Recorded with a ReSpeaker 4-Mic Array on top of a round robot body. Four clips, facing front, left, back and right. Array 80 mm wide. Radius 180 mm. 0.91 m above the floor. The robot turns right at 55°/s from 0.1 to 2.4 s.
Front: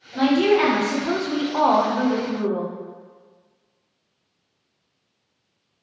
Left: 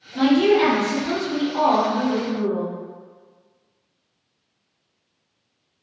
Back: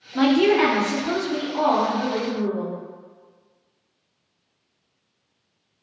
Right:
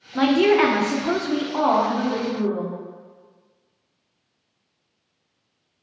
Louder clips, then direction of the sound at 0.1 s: Even, even; 115° right.